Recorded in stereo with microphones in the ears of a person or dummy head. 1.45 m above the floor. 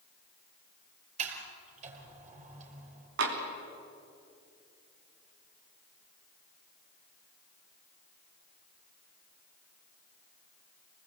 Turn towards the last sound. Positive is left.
turn(degrees=-70)  # may be behind; listen again after turning